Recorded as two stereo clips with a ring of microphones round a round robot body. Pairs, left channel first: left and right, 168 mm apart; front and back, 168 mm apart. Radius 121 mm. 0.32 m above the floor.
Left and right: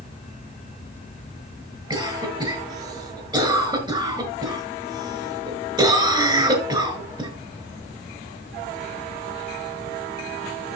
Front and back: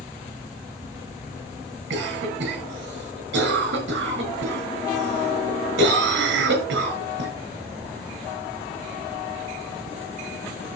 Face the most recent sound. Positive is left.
turn(degrees=-155)